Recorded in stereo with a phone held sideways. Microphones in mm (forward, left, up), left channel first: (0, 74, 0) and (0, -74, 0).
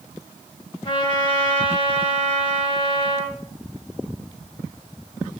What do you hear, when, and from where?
0.8 s a trumpet: 40° left (ahead or behind), 0.7 m